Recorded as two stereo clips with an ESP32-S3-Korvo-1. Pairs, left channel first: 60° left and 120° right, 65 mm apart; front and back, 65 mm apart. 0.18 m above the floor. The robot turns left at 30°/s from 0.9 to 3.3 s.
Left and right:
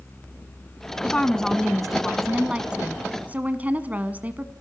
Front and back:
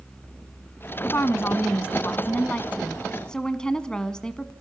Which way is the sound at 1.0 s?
5° right.